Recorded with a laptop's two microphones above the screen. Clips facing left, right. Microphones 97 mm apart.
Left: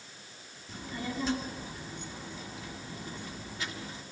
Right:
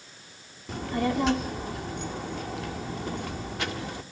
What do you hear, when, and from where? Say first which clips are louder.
0.7 s a child speaking: right 11 dB; 65° right (ahead or behind), 1.8 m